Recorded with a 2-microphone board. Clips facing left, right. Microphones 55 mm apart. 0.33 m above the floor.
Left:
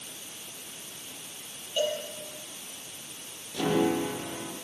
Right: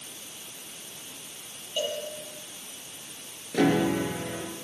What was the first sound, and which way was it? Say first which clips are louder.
A cowbell: left 2 dB; centre (ahead or behind).